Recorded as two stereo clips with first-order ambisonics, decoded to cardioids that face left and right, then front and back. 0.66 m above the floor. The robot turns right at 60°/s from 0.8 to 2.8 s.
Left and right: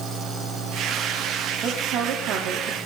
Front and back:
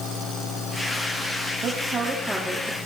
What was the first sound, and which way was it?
A woman speaking, 135° right.